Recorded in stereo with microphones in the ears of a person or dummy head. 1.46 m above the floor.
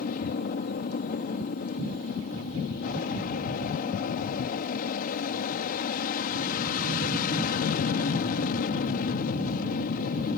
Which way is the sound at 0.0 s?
45° left (ahead or behind).